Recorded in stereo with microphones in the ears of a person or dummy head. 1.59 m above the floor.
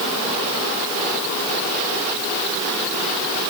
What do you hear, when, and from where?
Only background noise.